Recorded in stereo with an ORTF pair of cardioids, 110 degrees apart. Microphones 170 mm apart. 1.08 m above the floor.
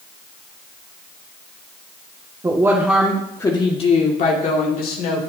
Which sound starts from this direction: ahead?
A woman speaking, at 2.4 s.